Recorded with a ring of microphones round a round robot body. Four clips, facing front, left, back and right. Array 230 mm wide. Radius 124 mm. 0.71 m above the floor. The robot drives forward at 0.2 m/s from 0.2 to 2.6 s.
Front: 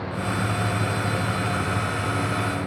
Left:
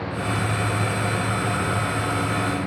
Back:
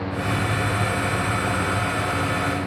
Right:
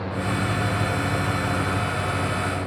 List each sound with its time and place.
Only background noise.